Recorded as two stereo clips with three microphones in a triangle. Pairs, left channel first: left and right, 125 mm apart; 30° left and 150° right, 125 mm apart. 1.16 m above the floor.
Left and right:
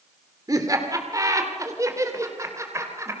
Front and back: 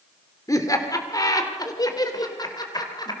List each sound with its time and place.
0.5 s laughter: 30° right, 3 m; by 3.1 s 25° right, 4 m